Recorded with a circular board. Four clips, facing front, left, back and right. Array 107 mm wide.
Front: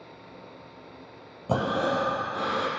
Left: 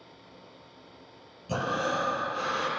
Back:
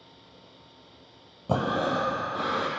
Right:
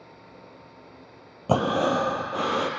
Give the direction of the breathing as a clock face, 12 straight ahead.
3 o'clock.